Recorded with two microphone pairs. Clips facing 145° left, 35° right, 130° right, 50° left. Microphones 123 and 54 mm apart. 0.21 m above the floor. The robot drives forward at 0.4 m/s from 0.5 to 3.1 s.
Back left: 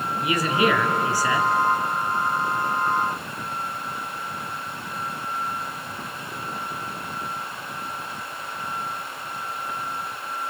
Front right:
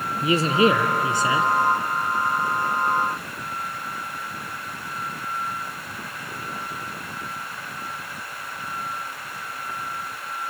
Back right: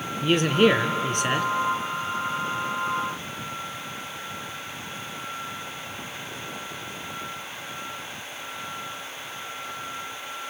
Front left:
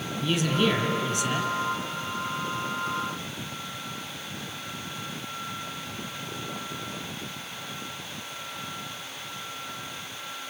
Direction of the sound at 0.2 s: 90° right.